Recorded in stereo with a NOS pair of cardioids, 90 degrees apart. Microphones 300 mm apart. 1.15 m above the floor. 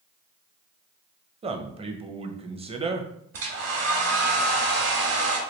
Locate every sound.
1.4 s a man speaking: 20° right, 0.6 m
3.3 s a hair dryer: 50° right, 1.1 m